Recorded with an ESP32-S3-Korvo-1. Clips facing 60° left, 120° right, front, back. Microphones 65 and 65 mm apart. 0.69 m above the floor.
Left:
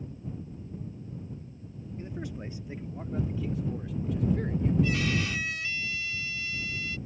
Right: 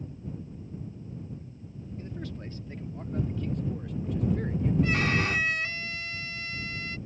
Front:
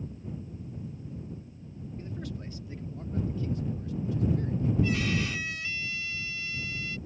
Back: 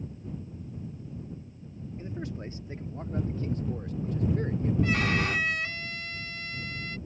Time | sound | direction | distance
2.0 | a man speaking | 125° left | ?
4.8 | a violin | 155° right | ?